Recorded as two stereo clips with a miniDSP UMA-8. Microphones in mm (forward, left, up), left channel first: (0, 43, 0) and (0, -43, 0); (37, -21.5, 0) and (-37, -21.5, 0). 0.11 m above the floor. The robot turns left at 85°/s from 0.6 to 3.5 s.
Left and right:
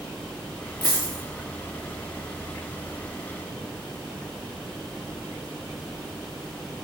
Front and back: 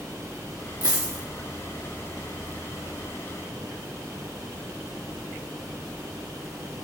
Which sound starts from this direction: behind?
A dropped coin, at 0.8 s.